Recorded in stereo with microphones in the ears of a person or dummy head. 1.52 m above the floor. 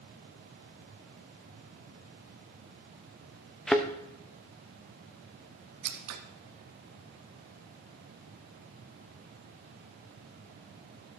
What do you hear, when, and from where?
3.7 s a thud: 5° left (ahead or behind), 0.9 m
5.8 s scissors: 80° right, 1.7 m